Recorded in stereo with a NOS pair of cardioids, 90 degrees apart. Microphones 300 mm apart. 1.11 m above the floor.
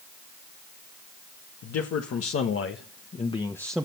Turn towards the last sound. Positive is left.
turn(degrees=-5)